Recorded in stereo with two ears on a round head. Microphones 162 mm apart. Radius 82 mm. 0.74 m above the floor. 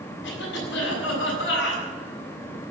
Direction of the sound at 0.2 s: 80° left.